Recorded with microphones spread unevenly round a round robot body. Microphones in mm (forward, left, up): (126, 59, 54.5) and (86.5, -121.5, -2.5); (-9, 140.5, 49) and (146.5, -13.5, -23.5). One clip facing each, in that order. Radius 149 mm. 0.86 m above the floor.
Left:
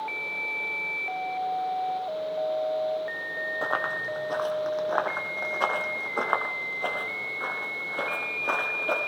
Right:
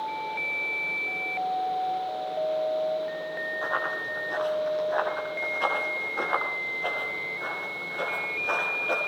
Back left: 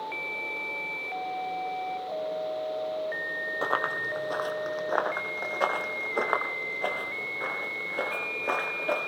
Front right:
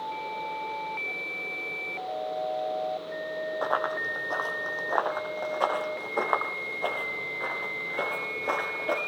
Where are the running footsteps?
95° left, 1.6 m; by 9.0 s 50° left, 5.5 m.